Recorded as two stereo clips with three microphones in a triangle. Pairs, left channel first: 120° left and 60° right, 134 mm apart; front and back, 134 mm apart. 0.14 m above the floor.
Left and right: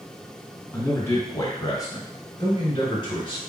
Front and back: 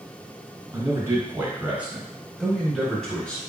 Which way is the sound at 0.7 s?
165° left.